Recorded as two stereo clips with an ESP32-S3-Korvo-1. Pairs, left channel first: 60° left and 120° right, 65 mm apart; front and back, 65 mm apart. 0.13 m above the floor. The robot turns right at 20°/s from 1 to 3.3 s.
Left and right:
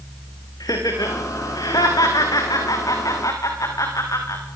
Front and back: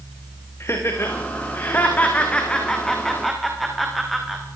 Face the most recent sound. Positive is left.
turn(degrees=90)